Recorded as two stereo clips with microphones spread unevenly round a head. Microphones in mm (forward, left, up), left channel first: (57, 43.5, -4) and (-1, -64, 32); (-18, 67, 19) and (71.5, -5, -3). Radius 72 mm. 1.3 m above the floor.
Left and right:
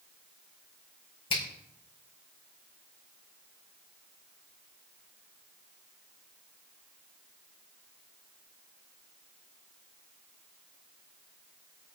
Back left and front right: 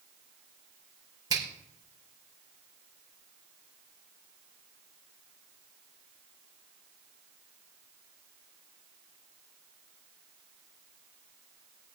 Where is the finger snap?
15° left, 4.5 m.